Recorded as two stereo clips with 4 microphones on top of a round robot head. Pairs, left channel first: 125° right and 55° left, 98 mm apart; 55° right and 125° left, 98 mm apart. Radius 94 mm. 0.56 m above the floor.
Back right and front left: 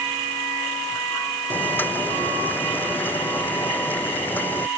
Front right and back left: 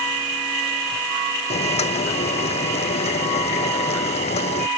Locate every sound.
1.5 s boiling: 50° right